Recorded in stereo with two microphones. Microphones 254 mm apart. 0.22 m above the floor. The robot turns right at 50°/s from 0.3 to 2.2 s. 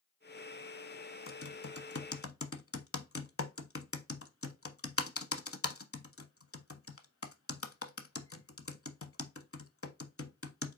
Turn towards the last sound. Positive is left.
turn(degrees=60)  # may be behind; listen again after turning